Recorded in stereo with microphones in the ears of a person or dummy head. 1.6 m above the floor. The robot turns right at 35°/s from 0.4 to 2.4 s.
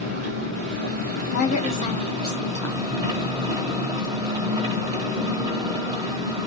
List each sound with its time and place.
0.0 s an engine running: 105° right, 1.4 m; by 6.5 s 35° right, 1.4 m
1.3 s a woman speaking: 125° left, 0.8 m; by 2.9 s 165° left, 0.8 m